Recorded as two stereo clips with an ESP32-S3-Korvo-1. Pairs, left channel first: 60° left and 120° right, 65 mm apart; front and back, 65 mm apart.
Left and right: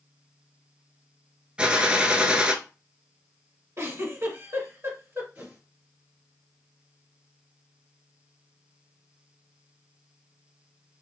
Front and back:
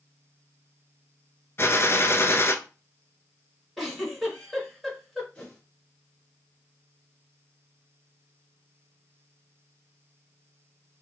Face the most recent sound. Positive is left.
turn(degrees=-65)